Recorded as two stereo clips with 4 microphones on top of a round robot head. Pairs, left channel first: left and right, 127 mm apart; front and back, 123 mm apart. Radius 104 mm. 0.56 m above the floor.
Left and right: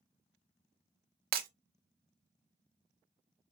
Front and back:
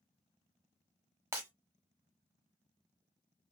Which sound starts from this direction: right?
Breaking glass, at 1.3 s.